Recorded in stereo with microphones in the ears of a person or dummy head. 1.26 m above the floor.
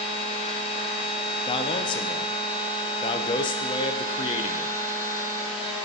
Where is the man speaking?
30° left (ahead or behind), 0.5 m.